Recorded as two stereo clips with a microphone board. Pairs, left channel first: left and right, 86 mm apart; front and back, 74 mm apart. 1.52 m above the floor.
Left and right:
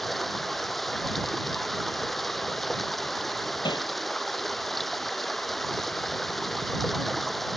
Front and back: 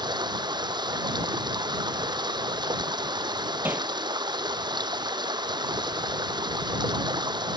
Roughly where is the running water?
Behind.